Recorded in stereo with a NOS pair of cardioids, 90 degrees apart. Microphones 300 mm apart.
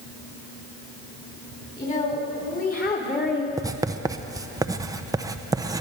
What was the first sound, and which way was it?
A woman speaking, 25° left.